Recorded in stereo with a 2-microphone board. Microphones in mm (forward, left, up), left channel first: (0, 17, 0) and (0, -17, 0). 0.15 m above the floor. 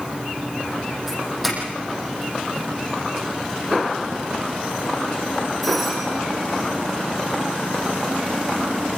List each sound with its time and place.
1.1 s a doorbell: 5° right (ahead or behind), 8.5 m